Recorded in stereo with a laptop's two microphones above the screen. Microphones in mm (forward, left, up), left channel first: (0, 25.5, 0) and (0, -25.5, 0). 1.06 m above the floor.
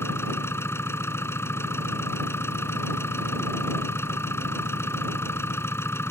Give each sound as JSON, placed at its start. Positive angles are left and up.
{"t": 0.0, "sound": "an engine running", "side_deg": 55}